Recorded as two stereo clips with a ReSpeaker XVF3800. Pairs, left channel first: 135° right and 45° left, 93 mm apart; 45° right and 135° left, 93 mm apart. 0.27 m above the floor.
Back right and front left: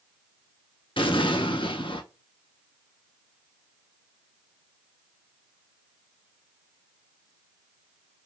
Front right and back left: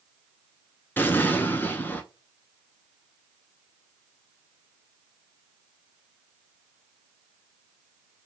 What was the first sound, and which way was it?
An explosion, 115° right.